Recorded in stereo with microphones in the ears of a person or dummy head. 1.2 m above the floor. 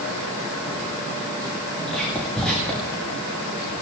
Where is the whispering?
5° left (ahead or behind), 1.6 m.